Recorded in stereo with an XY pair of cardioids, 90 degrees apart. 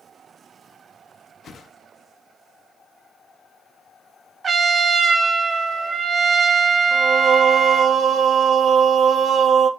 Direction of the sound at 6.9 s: 65° right.